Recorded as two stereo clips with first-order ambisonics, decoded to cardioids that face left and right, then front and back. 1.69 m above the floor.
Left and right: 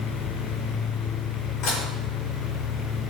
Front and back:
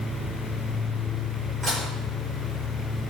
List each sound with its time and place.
1.6 s dishes clattering: 110° left, 4 m